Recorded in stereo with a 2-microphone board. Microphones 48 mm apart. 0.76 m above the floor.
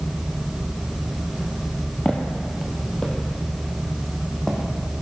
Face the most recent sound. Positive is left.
turn(degrees=10)  # may be behind; listen again after turning